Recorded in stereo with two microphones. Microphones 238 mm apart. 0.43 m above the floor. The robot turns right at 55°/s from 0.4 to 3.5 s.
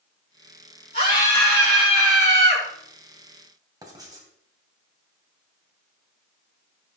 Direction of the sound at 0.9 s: 135° left.